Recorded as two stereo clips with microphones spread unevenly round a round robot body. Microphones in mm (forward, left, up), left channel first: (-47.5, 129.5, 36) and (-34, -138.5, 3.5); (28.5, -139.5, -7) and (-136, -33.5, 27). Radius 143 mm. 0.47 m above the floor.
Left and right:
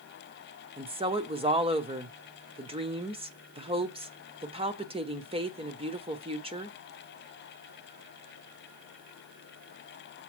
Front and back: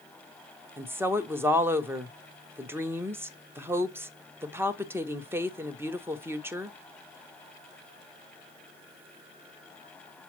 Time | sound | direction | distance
0.8 | a woman speaking | 125° right | 1.1 m